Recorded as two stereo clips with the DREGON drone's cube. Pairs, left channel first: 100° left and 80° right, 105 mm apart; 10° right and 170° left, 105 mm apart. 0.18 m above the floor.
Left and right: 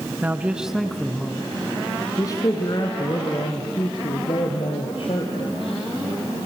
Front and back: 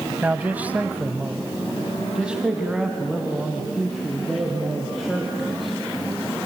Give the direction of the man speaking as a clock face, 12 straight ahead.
4 o'clock.